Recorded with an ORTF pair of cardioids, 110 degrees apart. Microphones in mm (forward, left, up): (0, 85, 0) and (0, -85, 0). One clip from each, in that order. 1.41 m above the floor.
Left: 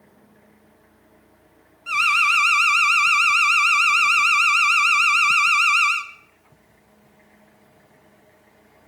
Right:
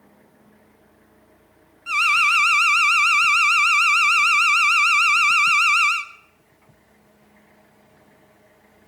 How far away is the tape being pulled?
No tape being pulled in this recording.